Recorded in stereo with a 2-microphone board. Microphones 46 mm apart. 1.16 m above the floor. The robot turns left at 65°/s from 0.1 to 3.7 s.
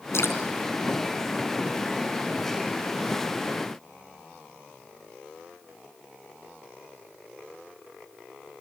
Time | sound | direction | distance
0.1 | dripping | 75° left (ahead or behind) | 3.5 m